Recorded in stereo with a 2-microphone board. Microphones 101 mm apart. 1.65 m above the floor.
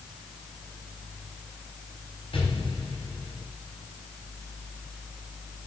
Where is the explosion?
65° left (ahead or behind), 4 m.